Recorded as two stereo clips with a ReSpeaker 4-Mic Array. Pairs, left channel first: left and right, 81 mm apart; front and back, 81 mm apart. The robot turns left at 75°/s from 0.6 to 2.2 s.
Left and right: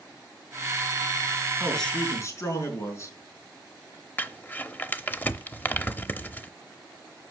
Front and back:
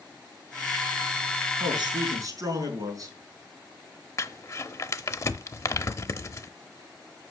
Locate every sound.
1.6 s a man speaking: 175° right, 4.5 m; by 3.1 s 140° left, 4.5 m
4.2 s crumpling: 30° left, 0.7 m